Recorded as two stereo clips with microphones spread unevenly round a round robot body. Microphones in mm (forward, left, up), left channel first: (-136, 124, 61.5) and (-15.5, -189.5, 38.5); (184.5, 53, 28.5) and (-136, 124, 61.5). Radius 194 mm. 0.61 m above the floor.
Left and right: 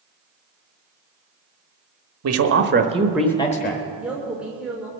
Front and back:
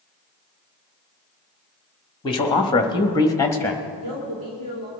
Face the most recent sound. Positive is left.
turn(degrees=-155)